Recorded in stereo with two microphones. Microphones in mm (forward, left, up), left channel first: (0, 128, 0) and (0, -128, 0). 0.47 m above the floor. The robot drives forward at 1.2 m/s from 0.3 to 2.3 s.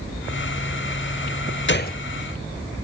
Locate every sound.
1.7 s a gunshot: 50° left (ahead or behind), 0.7 m; by 2.0 s 30° left (ahead or behind), 1.0 m